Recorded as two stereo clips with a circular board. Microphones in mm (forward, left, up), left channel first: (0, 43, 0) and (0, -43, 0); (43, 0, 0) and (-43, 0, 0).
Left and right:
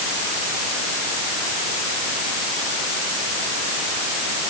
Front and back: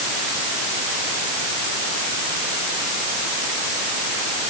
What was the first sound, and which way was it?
Only background noise.